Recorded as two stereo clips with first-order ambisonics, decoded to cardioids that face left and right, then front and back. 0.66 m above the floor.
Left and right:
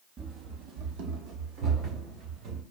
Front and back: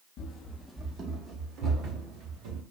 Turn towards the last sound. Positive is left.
turn(degrees=-140)